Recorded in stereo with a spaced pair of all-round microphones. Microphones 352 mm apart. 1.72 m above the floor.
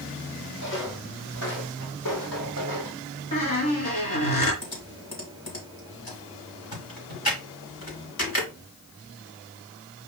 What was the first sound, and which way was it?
Footsteps, 55° left (ahead or behind).